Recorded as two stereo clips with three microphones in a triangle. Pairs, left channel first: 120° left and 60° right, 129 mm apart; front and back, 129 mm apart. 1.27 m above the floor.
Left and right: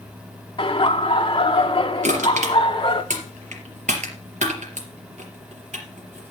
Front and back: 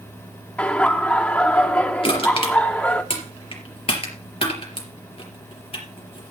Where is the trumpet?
I don't hear a trumpet.